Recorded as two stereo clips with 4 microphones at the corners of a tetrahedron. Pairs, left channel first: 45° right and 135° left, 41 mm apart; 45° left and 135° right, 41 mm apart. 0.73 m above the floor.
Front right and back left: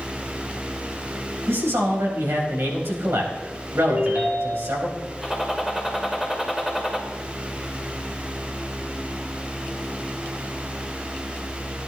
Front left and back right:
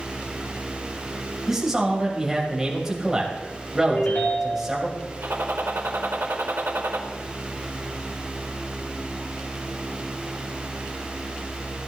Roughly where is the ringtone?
Left.